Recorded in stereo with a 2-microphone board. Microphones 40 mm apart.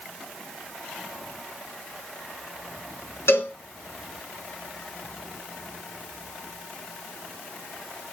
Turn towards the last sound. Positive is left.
turn(degrees=90)